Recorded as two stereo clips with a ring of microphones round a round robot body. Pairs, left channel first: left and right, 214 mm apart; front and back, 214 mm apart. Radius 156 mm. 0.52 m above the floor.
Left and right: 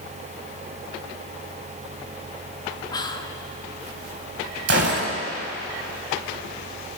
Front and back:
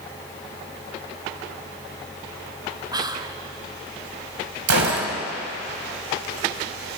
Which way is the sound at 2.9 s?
135° left.